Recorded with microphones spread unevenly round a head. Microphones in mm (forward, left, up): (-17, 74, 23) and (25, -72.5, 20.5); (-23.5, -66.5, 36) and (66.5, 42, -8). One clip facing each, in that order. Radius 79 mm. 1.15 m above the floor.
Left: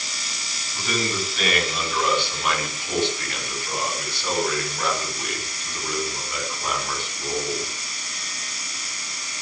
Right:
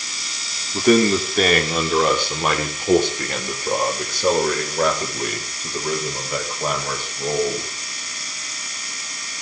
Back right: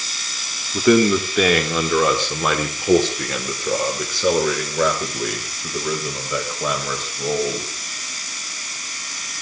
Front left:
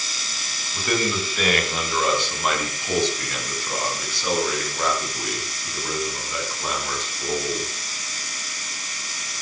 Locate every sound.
0.7 s a man speaking: 120° right, 3 m; by 7.7 s 125° right, 7 m